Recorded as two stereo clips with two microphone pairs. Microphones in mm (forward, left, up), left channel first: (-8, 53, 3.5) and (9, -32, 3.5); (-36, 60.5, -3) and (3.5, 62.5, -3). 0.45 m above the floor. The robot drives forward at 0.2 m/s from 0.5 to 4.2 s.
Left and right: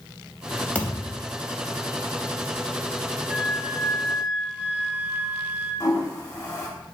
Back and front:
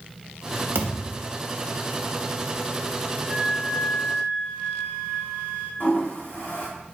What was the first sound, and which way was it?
A thud, 25° left.